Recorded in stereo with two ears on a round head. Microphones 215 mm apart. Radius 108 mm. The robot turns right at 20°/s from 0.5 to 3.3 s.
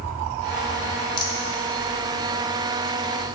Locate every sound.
1.2 s a rattle: 20° left (ahead or behind), 0.9 m; by 1.4 s 15° left (ahead or behind), 0.9 m